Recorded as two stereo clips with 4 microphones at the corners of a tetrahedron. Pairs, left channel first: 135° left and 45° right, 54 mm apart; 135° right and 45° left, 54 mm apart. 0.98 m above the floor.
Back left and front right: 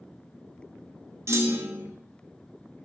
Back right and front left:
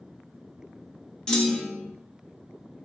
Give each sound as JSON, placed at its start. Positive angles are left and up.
{"t": 1.3, "sound": "a clunk", "azimuth_deg": -55, "distance_m": 1.5}